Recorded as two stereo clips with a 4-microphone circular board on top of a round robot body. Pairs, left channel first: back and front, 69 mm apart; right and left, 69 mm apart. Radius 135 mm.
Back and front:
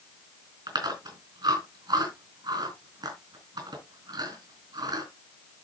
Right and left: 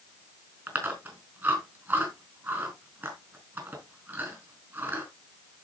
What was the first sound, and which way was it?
Chewing, 30° left.